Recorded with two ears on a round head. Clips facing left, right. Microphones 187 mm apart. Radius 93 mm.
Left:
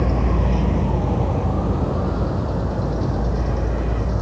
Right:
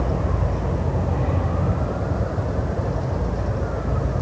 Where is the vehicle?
80° left; by 4.2 s 70° left (ahead or behind).